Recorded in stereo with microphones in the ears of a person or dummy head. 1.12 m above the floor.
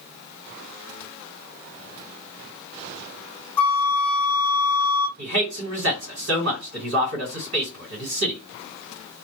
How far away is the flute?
About 0.6 m.